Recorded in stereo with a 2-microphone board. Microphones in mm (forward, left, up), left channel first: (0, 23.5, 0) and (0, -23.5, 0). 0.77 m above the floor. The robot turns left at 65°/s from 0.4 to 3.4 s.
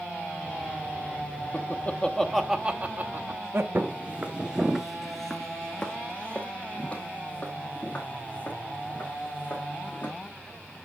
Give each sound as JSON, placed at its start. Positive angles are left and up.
{"t": 1.5, "sound": "laughter", "side_deg": 50, "distance_m": 0.8}
{"t": 3.8, "sound": "footsteps", "side_deg": -40, "distance_m": 0.9}